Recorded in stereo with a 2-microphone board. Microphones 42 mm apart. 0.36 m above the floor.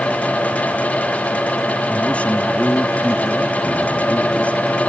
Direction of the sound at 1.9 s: 35° left (ahead or behind).